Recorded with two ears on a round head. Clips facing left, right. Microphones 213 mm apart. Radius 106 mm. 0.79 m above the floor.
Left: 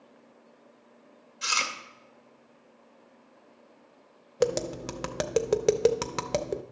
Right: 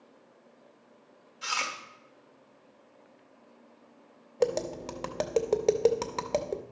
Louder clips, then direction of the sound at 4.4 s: Left 1 dB; 15° left (ahead or behind).